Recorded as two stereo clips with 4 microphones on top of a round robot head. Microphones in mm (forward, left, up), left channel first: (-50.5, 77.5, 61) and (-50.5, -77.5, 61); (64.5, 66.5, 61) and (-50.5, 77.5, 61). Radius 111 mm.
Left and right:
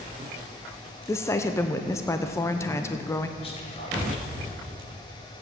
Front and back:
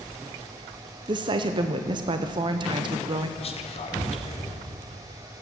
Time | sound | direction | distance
1.1 | a woman speaking | 155° left | 0.6 m
3.4 | whispering | 30° left | 1.5 m